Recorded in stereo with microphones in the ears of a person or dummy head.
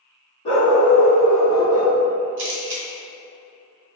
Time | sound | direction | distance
0.5 | a dog barking | 35° left (ahead or behind) | 1.3 m
2.4 | a camera shutter | 60° right (ahead or behind) | 0.9 m